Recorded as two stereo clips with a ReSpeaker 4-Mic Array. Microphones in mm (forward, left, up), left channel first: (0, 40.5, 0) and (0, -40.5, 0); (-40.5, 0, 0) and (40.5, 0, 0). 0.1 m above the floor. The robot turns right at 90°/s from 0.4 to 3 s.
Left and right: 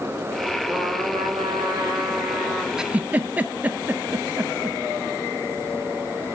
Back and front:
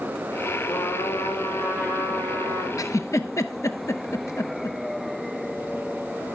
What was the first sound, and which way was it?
A trumpet, 155° right.